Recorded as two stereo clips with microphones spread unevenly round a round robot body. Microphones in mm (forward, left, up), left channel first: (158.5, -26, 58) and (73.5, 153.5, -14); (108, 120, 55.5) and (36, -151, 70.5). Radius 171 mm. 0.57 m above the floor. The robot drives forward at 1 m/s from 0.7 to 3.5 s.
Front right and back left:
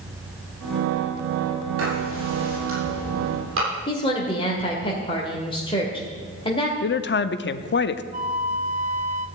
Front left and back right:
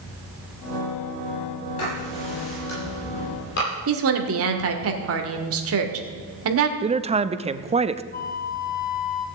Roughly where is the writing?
Behind left.